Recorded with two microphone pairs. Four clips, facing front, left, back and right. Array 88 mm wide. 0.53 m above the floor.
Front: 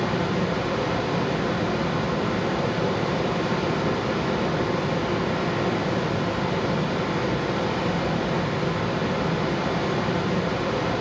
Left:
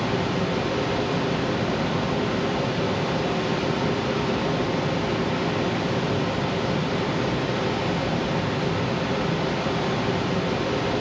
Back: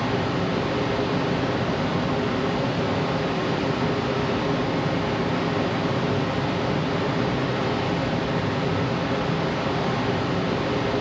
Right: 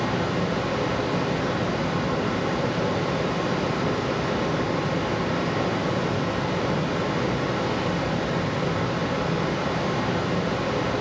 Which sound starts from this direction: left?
Running water, at 0.0 s.